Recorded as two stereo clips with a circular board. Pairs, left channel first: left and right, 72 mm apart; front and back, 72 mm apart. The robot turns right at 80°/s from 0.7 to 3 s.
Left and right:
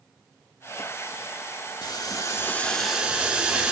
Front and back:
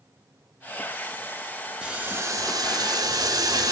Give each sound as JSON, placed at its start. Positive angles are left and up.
{"t": 1.8, "sound": "boiling", "azimuth_deg": 100, "distance_m": 0.6}